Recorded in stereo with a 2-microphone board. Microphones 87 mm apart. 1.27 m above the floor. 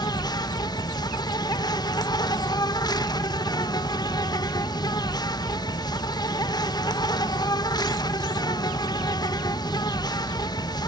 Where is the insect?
50° left (ahead or behind), 0.9 m.